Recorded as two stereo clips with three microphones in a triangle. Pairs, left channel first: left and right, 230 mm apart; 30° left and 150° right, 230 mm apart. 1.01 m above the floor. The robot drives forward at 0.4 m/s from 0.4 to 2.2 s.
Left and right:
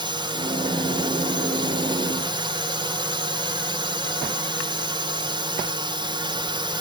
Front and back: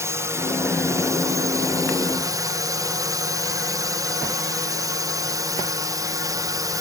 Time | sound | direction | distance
0.0 | a drone | 95° right | ?